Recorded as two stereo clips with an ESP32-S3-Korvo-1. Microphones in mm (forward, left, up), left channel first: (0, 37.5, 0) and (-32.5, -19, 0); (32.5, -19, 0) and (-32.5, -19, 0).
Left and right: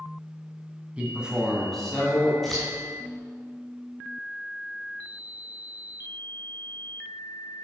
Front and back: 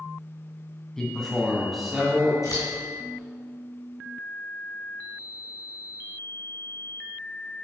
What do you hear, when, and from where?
1.0 s a man speaking: 70° right, 1.9 m; by 2.3 s 100° left, 1.9 m
2.4 s scissors: 25° right, 3 m